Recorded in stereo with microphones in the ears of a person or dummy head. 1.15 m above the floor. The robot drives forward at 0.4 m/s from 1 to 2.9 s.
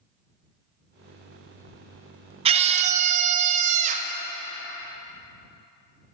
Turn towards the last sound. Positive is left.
turn(degrees=-40)  # may be behind; listen again after turning